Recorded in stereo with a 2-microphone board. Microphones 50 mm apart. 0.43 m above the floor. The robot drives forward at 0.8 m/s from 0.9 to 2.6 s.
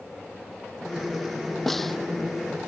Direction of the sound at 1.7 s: 5° left (ahead or behind).